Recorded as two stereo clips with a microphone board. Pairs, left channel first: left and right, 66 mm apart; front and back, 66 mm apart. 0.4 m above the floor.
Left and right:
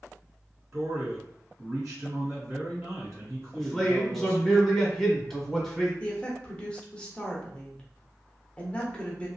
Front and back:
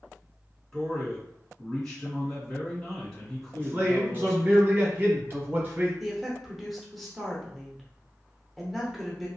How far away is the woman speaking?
About 0.8 m.